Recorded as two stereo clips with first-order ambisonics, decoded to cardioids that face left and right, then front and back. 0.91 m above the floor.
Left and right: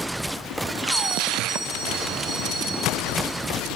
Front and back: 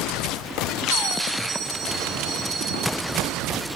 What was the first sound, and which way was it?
A bell, straight behind.